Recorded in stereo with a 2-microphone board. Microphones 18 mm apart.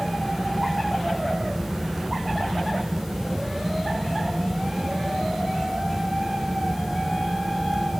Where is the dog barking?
I don't hear a dog barking.